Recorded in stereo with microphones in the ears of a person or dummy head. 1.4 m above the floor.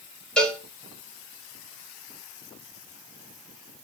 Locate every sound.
0.4 s a cowbell: 5° left (ahead or behind), 3 m